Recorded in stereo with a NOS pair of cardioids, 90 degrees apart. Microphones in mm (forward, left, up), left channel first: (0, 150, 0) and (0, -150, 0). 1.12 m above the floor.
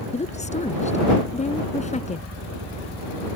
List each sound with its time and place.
0.1 s a woman speaking: 25° left